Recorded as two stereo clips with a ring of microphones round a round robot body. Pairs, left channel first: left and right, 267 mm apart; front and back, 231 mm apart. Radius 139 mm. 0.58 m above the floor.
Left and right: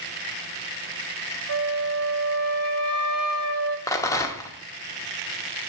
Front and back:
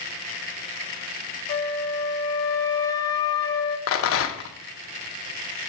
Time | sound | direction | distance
1.5 | a flute | 75° right | 0.9 m
3.9 | a rattle | 10° left | 0.8 m